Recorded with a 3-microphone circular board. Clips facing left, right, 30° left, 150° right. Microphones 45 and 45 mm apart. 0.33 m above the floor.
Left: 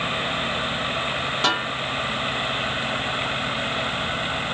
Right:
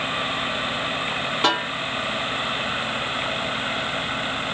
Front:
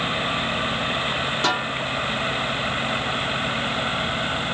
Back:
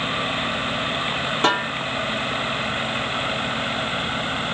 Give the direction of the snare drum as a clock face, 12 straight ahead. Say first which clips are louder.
Right 2 dB, back 4 dB; 5 o'clock.